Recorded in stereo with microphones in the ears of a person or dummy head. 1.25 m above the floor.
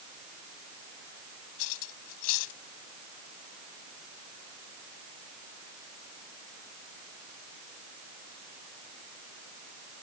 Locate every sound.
1.6 s cutlery clinking: 85° left